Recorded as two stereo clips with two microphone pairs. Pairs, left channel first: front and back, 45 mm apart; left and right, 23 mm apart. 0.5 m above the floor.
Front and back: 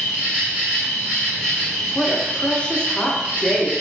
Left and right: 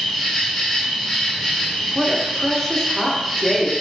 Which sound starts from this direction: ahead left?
A woman speaking, at 1.9 s.